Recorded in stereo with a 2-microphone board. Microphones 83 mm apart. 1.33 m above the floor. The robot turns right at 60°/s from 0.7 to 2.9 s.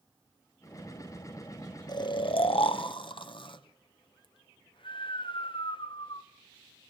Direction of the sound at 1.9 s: 50° left (ahead or behind).